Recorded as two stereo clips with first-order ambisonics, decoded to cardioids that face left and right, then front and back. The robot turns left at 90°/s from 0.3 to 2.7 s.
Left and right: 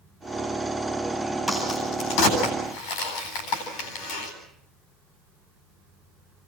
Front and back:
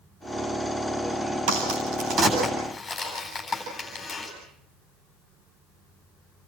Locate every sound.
1.5 s a crack: 175° right, 10 m; by 4.3 s 75° left, 10 m